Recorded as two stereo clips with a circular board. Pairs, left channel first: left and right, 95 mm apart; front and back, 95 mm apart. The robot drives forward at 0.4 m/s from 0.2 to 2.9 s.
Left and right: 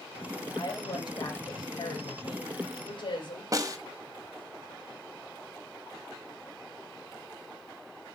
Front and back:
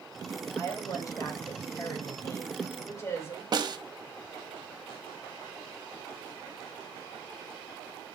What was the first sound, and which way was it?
A woman speaking, 50° left.